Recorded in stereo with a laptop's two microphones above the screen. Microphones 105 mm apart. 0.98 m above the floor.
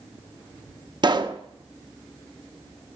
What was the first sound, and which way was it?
A pop, 45° right (ahead or behind).